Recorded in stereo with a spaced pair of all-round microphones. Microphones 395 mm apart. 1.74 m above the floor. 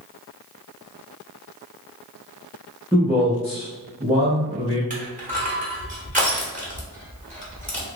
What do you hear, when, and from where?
2.9 s a man speaking: 15° right (ahead or behind), 1.4 m
4.9 s crushing: 20° right (ahead or behind), 1.3 m